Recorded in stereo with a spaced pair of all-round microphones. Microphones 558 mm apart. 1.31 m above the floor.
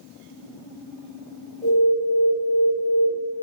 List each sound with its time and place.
1.6 s an alarm: 5° left (ahead or behind), 3.5 m